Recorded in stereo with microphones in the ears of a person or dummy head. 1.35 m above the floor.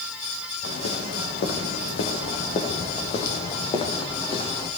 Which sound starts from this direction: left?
Footsteps, at 0.6 s.